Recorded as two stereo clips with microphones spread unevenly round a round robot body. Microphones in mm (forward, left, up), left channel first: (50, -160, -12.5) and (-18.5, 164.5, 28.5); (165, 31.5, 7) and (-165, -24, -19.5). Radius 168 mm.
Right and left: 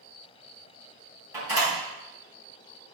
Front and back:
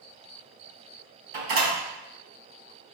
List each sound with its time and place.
1.3 s a door slam: 175° right, 3.5 m